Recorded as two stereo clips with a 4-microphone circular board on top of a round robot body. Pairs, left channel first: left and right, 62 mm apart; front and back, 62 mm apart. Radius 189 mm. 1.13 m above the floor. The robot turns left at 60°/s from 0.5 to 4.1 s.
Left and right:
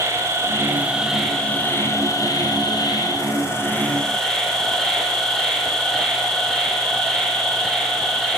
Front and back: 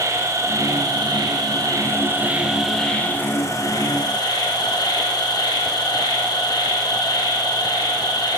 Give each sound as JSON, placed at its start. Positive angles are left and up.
{"t": 0.0, "sound": "an insect", "azimuth_deg": -140, "distance_m": 7.5}